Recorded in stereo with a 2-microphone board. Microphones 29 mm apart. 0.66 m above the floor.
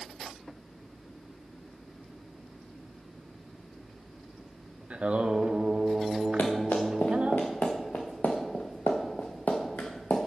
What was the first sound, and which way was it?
Singing, 50° right (ahead or behind).